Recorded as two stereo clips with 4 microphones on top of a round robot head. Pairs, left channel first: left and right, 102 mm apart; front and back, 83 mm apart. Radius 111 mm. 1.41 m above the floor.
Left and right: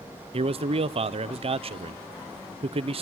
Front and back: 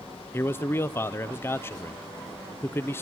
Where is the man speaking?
65° right, 0.7 m.